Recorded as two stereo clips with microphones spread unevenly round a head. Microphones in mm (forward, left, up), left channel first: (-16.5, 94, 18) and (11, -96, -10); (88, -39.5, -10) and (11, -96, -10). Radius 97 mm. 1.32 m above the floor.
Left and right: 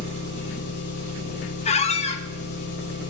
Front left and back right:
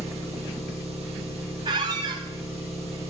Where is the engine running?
125° left, 7.5 m.